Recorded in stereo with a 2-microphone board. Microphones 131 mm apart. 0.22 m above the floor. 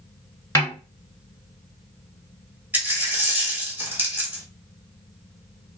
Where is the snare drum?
20° left (ahead or behind), 0.9 m.